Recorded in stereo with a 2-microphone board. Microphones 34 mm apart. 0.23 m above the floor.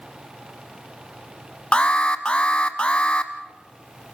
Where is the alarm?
30° left (ahead or behind), 0.9 m.